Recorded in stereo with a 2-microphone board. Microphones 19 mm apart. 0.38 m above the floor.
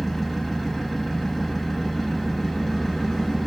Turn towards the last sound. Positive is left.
turn(degrees=10)  # may be behind; listen again after turning